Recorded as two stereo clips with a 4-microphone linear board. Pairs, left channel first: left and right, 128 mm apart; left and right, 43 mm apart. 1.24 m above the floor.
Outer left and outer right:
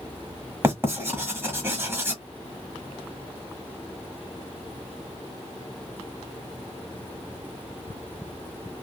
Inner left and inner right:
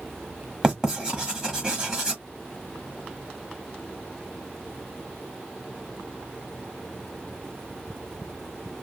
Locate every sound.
0.6 s writing: 20° right (ahead or behind), 1.1 m